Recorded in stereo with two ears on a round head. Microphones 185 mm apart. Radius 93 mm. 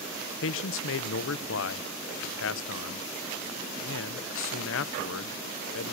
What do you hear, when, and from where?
0.4 s a man speaking: 65° left (ahead or behind), 0.5 m